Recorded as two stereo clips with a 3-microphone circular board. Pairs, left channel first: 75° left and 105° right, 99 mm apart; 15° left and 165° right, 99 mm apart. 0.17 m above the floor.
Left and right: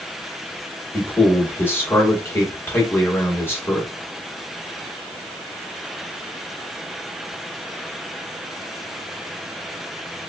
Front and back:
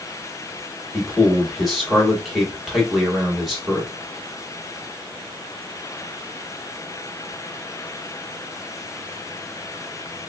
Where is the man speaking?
105° left, 1.2 m.